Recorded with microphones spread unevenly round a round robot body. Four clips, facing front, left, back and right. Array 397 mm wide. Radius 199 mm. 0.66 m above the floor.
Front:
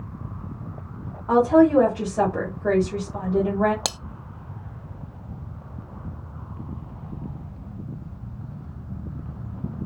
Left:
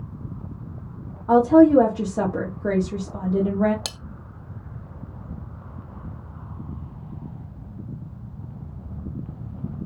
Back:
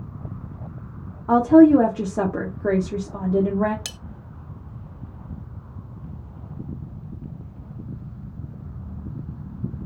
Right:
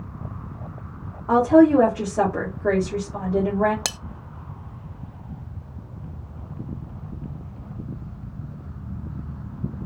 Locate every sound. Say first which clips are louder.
1.3 s a woman speaking: left 1 dB, back 4 dB; 170° left, 1.5 m
3.9 s cutlery clinking: right 5 dB, front 11 dB; 30° right, 0.6 m